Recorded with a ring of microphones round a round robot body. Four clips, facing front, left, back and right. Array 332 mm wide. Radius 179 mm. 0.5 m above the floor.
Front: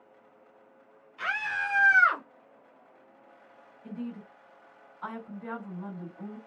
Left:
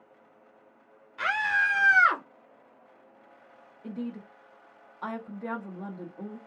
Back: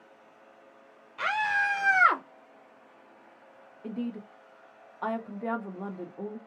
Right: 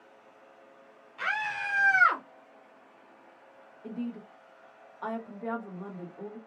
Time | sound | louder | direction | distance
1.2 | a scream | left 6 dB, back 5 dB | 155° left | 2 m
3.8 | a woman speaking | even, back 4 dB | 170° left | 1.4 m